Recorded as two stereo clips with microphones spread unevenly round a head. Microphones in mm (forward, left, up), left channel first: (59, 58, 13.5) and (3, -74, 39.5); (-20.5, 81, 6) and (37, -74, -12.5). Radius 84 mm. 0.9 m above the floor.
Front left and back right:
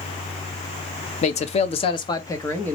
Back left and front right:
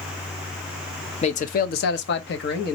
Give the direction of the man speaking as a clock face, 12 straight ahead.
10 o'clock.